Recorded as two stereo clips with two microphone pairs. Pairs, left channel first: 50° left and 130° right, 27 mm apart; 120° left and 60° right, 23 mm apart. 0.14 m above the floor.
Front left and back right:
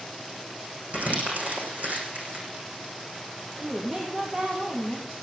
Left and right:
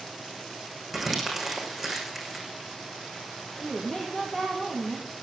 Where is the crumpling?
150° right, 6.5 m.